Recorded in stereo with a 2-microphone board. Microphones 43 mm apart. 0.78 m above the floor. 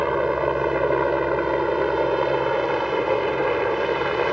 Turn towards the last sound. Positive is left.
turn(degrees=0)  # may be behind; listen again after turning